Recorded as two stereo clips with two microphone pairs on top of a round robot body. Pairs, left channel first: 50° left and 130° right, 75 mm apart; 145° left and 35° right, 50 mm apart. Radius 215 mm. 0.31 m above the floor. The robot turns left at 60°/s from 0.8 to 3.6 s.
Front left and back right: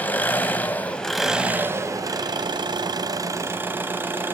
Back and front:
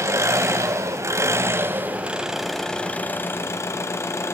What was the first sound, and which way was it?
An engine running, 20° right.